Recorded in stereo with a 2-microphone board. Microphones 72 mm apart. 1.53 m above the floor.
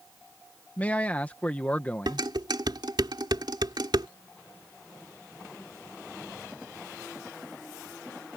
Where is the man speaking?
20° left (ahead or behind).